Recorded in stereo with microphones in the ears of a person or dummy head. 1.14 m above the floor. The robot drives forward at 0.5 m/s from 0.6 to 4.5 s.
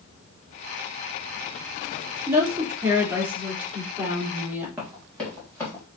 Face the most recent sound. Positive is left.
turn(degrees=15)  # may be behind; listen again after turning